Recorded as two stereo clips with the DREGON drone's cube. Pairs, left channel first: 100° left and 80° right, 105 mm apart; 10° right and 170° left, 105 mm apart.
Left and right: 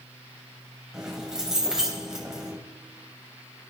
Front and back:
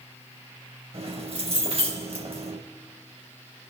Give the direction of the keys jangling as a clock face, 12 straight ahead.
5 o'clock.